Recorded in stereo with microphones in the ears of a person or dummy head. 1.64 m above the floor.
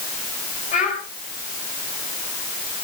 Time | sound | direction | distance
0.7 | a child speaking | 45° left (ahead or behind) | 5 m